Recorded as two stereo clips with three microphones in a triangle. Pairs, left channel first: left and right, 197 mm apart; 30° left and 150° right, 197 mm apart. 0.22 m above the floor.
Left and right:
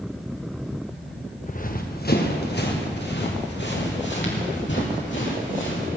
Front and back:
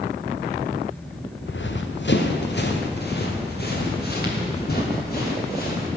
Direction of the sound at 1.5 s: 45° left.